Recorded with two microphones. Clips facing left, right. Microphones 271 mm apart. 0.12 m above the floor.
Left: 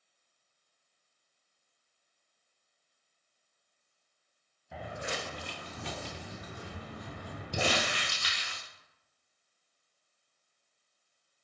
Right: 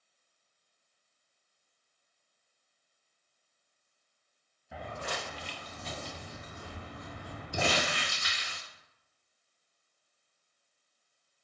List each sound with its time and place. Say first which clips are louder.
4.7 s footsteps: left 1 dB; 5° right (ahead or behind), 0.5 m; by 7.7 s 80° left, 1.7 m
7.5 s crumpling: even; 70° left (ahead or behind), 1.1 m